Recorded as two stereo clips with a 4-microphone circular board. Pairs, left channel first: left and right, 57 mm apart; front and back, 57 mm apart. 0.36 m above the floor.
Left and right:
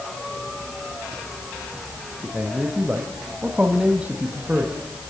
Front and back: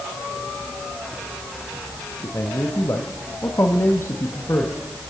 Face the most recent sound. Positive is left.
turn(degrees=-25)